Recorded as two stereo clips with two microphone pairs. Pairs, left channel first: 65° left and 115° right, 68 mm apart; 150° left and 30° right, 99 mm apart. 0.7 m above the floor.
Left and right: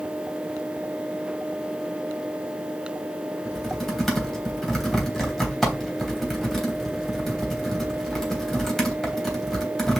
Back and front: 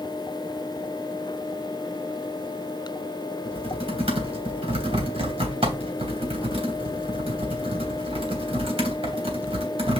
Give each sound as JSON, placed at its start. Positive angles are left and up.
{"t": 3.5, "sound": "typing on a keyboard", "azimuth_deg": -20, "distance_m": 3.0}